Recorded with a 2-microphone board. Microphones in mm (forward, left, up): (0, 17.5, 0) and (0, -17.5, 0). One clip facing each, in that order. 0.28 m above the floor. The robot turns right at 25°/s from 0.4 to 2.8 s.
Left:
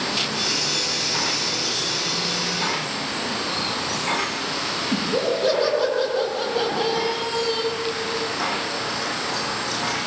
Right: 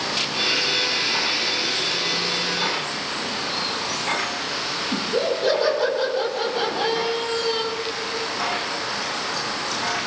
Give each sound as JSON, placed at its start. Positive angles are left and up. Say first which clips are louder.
{"t": 4.9, "sound": "laughter", "louder": "even", "side_deg": 0, "distance_m": 9.5}